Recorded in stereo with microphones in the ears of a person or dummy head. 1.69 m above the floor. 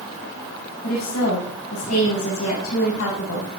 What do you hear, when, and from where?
0.8 s a woman speaking: 80° left, 6 m